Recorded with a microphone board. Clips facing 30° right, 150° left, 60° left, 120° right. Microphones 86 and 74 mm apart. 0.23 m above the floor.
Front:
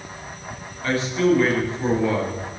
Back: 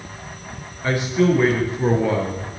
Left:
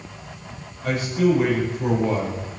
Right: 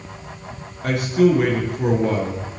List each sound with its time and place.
0.8 s a man speaking: 135° right, 4 m